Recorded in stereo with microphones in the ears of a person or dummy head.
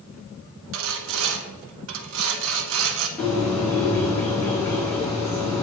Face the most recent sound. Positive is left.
turn(degrees=10)  # may be behind; listen again after turning